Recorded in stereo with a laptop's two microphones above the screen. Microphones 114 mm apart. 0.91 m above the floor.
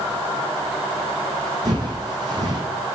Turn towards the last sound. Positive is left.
turn(degrees=-35)  # may be behind; listen again after turning